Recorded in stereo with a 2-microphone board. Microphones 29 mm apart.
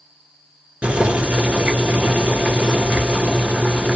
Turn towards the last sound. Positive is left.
turn(degrees=-45)  # may be behind; listen again after turning